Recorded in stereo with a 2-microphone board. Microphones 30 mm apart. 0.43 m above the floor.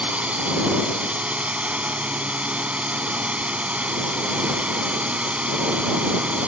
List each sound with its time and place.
0.0 s a drone: 45° right (ahead or behind)